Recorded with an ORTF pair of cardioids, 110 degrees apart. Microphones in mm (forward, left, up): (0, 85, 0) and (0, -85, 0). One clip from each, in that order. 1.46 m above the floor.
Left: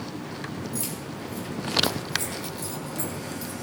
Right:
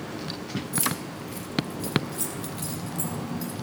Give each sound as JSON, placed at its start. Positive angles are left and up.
{"t": 0.7, "sound": "keys jangling", "azimuth_deg": -30, "distance_m": 2.0}